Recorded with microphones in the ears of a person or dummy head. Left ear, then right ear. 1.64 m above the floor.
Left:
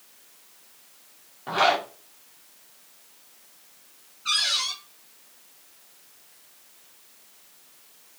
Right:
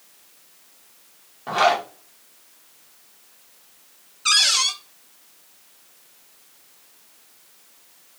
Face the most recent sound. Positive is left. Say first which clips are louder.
# right 6 dB
turn(degrees=-75)  # may be behind; listen again after turning